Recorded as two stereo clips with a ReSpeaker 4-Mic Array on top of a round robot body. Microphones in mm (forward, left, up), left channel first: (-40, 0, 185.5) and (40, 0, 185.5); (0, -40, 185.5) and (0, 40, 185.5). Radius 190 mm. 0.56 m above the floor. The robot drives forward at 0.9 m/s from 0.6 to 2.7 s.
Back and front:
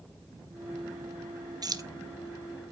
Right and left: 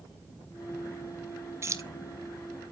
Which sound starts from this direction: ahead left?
Keys jangling, at 1.6 s.